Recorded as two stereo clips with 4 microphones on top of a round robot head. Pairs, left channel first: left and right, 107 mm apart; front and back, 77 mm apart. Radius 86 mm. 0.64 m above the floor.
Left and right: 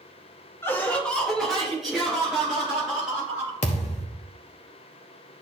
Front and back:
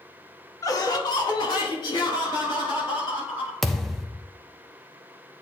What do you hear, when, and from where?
0.6 s laughter: 30° left, 1.2 m; by 3.6 s 5° right, 5 m
3.6 s a thud: 85° left, 0.5 m